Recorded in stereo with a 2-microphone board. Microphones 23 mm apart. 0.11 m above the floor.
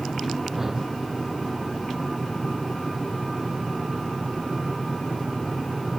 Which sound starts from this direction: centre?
A whoosh, at 0.5 s.